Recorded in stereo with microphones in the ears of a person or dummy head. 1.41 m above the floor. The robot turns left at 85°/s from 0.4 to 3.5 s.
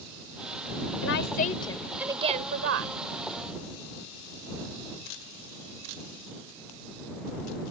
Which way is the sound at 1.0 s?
75° left.